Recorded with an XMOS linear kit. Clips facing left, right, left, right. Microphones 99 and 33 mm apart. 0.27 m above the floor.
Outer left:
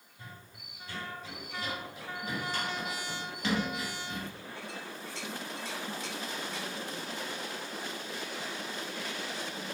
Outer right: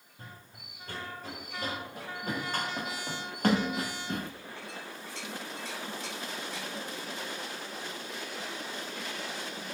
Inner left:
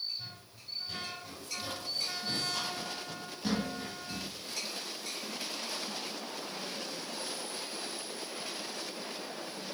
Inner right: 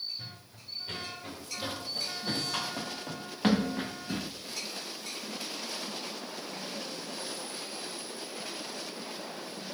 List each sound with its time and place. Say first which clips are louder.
0.2 s running footsteps: even, inner right 1 dB; 45° right (ahead or behind), 6 m; by 4.3 s 55° right (ahead or behind), 1.5 m